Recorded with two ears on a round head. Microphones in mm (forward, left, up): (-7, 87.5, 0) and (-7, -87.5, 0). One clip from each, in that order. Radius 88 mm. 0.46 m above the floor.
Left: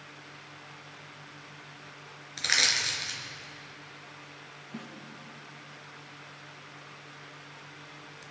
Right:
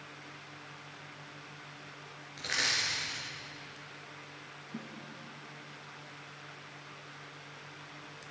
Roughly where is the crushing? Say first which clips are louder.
Left 6 dB; left.